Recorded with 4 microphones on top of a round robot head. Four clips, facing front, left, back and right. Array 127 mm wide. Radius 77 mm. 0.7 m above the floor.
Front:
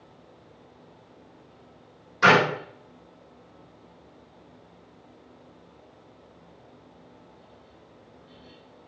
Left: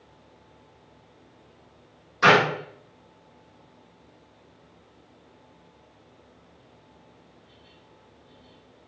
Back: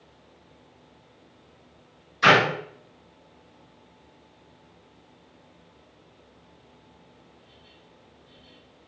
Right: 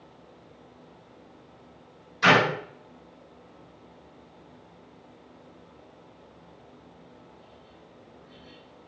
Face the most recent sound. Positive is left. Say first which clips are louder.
# left 2 dB, even
turn(degrees=45)